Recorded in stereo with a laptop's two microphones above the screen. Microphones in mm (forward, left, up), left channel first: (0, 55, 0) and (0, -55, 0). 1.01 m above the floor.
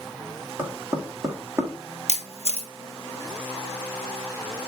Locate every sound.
0.6 s knocking: 25° right (ahead or behind), 1.4 m
2.1 s a camera shutter: 65° right (ahead or behind), 1.3 m